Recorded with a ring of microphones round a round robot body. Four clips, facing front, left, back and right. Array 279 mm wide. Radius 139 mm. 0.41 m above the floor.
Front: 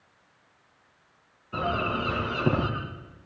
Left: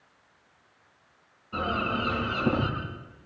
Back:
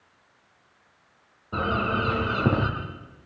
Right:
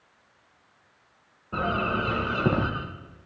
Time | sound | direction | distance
1.5 | a bird | 140° right | 7 m